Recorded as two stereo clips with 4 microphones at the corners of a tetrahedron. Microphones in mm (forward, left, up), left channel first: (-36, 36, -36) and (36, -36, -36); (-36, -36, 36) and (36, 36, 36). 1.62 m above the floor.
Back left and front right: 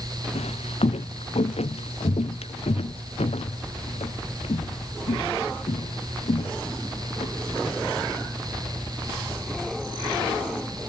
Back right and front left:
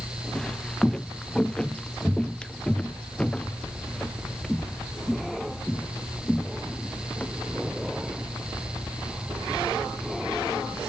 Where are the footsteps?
145° left; by 7.3 s 150° left.